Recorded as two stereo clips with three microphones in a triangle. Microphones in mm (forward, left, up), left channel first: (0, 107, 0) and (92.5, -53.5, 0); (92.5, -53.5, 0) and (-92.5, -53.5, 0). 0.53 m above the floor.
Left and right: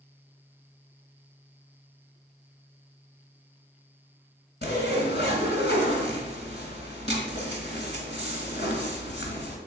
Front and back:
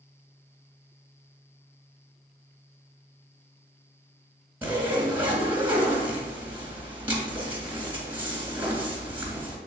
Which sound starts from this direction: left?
A zipper, at 4.6 s.